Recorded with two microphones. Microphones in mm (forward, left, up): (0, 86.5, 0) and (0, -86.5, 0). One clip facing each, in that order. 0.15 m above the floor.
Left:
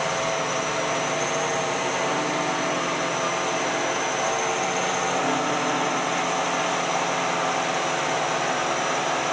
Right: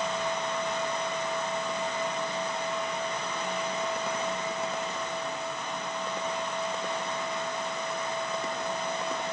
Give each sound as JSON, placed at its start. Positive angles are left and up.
{"t": 0.0, "sound": "a drone", "side_deg": 80}